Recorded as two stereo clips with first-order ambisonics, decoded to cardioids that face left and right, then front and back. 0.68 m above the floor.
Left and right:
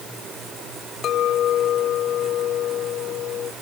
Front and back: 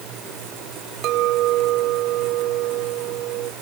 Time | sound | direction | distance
1.0 | a clink | 145° left | ?